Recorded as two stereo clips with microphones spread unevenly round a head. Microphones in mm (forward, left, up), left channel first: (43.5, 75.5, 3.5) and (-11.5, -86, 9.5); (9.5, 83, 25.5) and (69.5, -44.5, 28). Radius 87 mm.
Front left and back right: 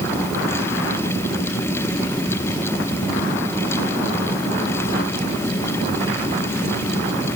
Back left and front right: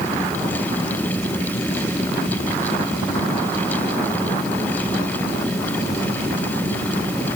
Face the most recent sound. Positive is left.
No sound to turn to.